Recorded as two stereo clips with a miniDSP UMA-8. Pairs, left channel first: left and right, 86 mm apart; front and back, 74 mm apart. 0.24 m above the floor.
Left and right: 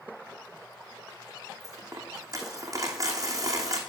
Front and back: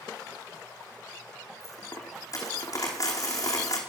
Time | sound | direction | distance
1.6 | a dropped coin | 40° right | 3.5 m